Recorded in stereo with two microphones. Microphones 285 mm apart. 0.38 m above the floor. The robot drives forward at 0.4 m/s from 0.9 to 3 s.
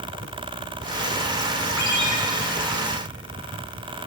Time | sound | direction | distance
1.8 | a ringtone | 70° right (ahead or behind) | 2 m